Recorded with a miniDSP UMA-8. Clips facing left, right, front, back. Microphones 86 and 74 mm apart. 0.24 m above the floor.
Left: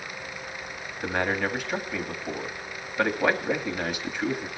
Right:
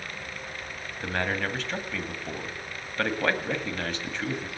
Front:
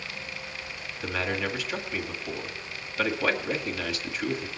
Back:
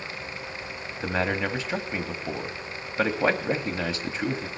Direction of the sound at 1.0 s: 155° left.